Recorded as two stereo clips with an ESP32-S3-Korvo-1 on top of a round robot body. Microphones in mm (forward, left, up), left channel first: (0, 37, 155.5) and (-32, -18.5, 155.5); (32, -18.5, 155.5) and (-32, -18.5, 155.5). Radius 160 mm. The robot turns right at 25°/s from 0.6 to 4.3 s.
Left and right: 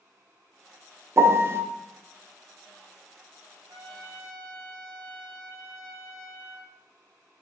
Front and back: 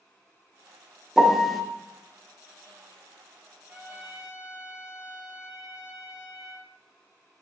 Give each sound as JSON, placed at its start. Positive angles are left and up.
{"t": 1.2, "sound": "a piano", "azimuth_deg": -105, "distance_m": 0.5}
{"t": 3.7, "sound": "a trumpet", "azimuth_deg": -120, "distance_m": 0.9}